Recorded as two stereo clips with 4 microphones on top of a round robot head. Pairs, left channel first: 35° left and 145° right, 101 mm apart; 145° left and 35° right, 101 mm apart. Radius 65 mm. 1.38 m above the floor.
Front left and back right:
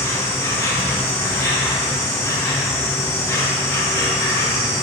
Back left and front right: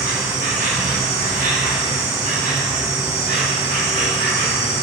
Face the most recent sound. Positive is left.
turn(degrees=-25)